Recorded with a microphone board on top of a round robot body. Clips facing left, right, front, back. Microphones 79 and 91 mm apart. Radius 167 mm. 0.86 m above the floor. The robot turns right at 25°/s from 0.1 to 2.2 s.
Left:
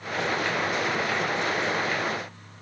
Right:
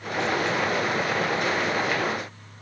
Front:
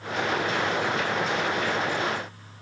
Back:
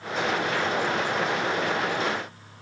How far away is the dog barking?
I don't hear a dog barking.